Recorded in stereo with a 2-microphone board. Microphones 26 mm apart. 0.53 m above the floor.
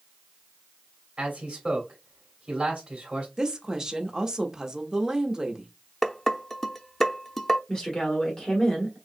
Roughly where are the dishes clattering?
Centre.